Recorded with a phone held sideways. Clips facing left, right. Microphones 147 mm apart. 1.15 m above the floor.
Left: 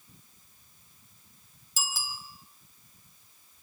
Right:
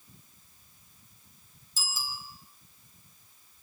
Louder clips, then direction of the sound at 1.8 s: Left 2 dB; 75° left (ahead or behind).